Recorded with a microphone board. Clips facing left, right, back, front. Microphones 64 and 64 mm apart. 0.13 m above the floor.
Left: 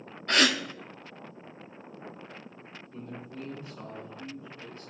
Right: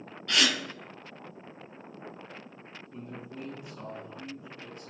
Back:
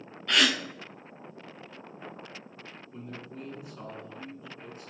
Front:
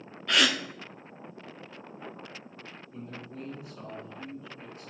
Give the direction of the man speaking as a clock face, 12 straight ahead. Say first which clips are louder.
Left 1 dB, even; 4 o'clock.